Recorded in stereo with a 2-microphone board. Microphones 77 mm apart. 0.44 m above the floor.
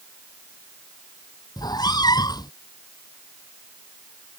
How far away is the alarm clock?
I don't hear an alarm clock.